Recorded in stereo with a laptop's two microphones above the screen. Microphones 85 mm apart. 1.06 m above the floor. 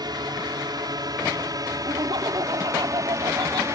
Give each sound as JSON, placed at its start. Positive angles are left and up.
{"t": 0.0, "sound": "a drone", "side_deg": -55}
{"t": 1.9, "sound": "laughter", "side_deg": -65}